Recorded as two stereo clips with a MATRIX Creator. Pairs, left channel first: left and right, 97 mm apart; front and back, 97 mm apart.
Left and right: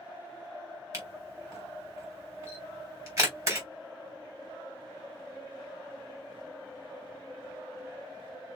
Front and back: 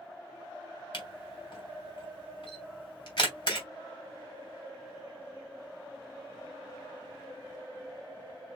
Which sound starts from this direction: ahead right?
A camera shutter, at 0.9 s.